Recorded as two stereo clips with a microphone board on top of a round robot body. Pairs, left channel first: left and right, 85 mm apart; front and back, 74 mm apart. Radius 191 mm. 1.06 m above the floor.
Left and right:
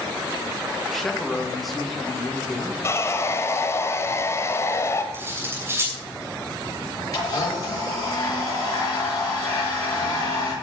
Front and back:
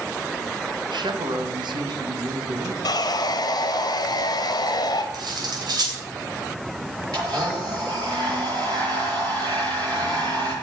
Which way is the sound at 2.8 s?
30° left.